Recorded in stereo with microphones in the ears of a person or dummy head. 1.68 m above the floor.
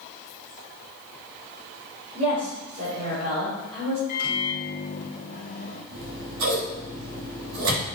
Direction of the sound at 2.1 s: 40° right (ahead or behind).